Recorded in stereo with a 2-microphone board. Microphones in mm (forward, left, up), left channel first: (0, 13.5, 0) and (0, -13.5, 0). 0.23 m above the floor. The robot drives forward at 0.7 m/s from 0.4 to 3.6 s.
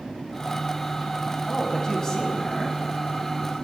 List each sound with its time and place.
1.5 s a man speaking: 20° left (ahead or behind), 1.0 m